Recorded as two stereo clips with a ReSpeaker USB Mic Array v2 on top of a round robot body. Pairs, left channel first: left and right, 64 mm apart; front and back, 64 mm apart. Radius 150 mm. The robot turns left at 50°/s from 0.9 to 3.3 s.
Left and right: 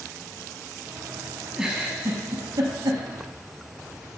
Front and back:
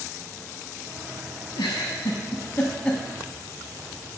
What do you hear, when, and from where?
1.6 s a giggle: 5° right, 0.6 m; by 3.0 s 80° right, 0.6 m